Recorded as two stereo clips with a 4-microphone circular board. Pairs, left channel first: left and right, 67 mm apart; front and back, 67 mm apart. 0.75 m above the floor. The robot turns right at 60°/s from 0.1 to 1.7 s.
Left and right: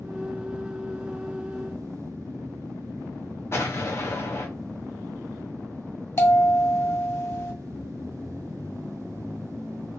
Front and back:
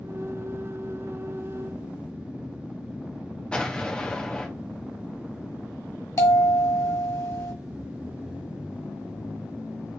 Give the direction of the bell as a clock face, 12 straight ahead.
11 o'clock.